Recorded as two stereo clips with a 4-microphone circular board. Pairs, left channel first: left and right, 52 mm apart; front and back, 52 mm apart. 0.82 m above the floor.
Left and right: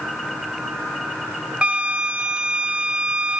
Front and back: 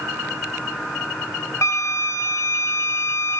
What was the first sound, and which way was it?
A flute, 25° right.